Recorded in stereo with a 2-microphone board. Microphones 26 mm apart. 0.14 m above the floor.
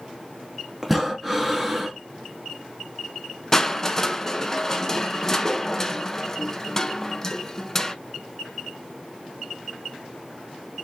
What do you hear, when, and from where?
0.8 s breathing: 5° right (ahead or behind), 1.0 m
3.5 s crushing: 20° left (ahead or behind), 0.6 m